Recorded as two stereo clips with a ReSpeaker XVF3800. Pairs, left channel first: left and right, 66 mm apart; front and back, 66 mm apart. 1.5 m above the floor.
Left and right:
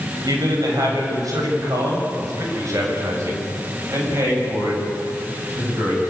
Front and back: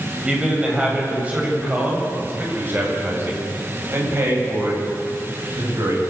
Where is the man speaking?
100° right, 8 m; by 6.0 s 145° right, 9 m.